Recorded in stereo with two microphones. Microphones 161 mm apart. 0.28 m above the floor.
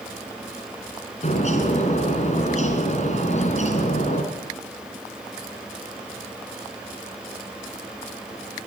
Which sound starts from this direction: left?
A bird, at 1.2 s.